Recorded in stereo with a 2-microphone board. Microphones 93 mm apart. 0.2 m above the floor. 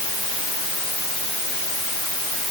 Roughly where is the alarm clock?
I don't hear an alarm clock.